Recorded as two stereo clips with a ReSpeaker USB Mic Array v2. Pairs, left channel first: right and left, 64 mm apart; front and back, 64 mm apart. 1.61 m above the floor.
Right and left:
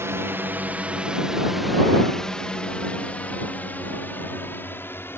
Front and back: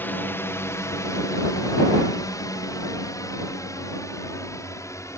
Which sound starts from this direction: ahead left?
A drone, at 0.0 s.